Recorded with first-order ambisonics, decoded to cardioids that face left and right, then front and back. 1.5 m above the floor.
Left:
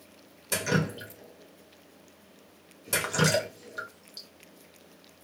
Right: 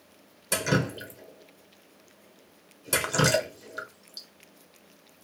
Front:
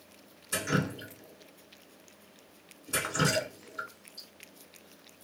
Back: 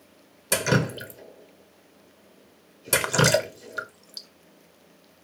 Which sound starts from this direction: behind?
Dripping, at 0.5 s.